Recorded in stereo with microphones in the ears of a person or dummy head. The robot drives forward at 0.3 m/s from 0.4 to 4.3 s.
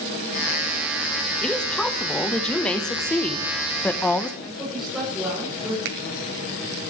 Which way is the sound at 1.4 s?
5° left (ahead or behind).